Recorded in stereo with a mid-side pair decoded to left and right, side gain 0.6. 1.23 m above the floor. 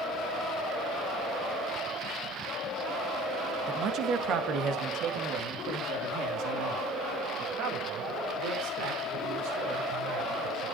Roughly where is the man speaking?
Ahead right.